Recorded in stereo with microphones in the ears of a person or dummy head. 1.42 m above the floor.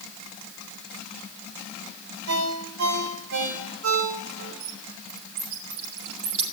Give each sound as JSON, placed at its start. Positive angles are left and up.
{"t": 2.3, "sound": "a ringtone", "side_deg": -70, "distance_m": 5.0}
{"t": 4.6, "sound": "a bird", "side_deg": -35, "distance_m": 8.0}